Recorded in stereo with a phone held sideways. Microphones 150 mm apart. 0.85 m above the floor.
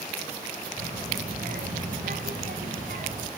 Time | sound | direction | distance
0.8 | a child speaking | 70° right (ahead or behind) | 3.5 m